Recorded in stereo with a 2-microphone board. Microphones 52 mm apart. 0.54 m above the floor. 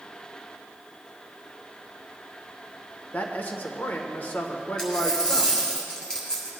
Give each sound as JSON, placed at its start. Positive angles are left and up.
{"t": 3.1, "sound": "a man speaking", "side_deg": 40, "distance_m": 1.4}
{"t": 4.8, "sound": "a dropped coin", "side_deg": 15, "distance_m": 4.0}